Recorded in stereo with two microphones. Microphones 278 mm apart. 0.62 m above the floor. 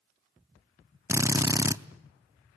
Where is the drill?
10° right (ahead or behind), 0.5 m.